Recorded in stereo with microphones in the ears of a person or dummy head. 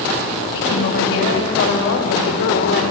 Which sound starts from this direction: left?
A woman speaking, at 0.5 s.